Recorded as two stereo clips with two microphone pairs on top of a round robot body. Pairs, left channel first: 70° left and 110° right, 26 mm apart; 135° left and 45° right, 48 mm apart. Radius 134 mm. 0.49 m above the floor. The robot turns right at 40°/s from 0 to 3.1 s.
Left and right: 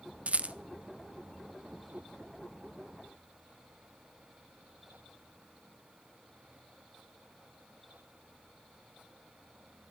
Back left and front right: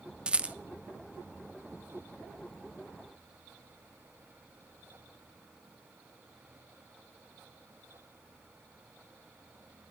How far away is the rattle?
About 0.6 m.